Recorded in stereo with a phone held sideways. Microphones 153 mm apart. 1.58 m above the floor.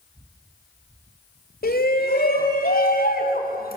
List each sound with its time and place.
1.6 s a shout: 70° left (ahead or behind), 3 m; by 3.8 s 65° left (ahead or behind), 6 m